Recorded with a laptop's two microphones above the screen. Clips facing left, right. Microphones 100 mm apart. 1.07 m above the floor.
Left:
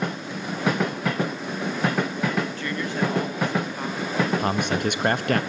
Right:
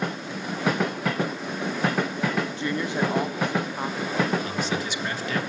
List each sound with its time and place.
2.5 s a woman speaking: 20° right (ahead or behind), 1.2 m; by 4.3 s 15° right (ahead or behind), 4 m
4.4 s a man speaking: 55° left (ahead or behind), 1.5 m